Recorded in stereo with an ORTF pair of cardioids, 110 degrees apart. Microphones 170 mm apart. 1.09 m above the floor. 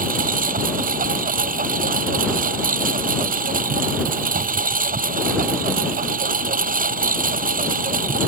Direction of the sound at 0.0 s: 55° right.